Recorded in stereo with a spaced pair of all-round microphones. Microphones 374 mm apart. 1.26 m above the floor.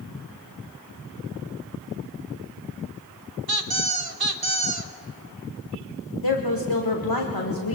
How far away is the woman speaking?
About 1.3 m.